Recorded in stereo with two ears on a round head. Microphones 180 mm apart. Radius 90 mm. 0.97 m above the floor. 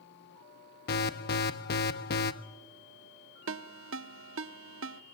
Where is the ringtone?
75° right (ahead or behind), 0.9 m.